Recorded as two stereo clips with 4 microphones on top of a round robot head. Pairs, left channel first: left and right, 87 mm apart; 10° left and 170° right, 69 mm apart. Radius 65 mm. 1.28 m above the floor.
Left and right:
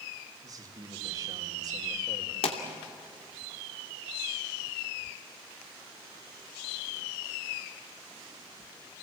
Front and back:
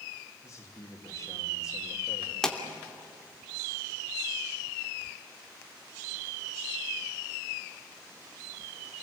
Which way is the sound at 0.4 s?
45° right.